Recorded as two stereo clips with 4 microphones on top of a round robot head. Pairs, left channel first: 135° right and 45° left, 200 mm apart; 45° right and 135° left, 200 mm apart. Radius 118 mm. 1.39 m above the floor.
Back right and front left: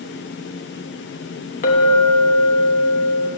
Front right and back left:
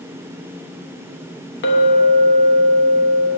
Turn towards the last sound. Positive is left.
turn(degrees=-85)